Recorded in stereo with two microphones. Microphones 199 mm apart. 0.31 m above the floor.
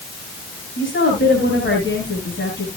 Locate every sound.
0.8 s a woman speaking: 70° left (ahead or behind), 5.5 m